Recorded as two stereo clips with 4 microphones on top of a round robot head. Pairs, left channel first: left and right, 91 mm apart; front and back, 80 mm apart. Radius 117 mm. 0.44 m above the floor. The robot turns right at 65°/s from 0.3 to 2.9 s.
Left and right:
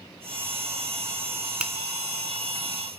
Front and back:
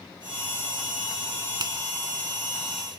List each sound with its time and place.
1.6 s a finger snap: 165° right, 1.1 m; by 1.7 s 155° right, 1.1 m